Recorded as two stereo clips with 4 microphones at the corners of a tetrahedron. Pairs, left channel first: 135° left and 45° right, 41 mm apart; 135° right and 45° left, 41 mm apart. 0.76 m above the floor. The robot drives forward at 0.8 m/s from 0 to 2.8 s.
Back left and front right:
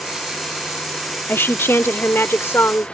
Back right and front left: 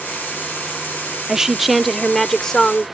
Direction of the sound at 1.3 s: 115° left.